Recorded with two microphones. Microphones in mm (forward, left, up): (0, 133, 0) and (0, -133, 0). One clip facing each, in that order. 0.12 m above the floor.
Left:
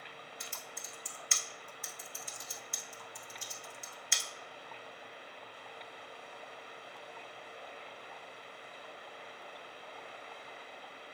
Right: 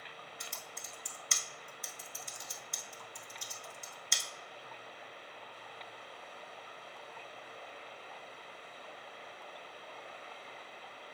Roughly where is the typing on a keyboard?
Right.